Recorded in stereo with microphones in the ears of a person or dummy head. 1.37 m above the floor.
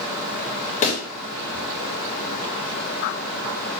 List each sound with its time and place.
0.8 s a pop: 35° left (ahead or behind), 0.6 m